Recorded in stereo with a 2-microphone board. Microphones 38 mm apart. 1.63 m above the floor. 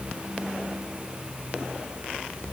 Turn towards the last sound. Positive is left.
No sound to turn to.